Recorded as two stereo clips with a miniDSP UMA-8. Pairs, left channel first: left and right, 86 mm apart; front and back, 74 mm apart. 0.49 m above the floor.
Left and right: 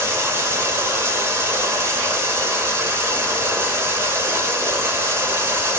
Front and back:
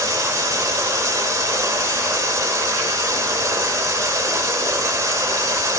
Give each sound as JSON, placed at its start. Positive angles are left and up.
{"t": 0.0, "sound": "running water", "azimuth_deg": -140, "distance_m": 1.9}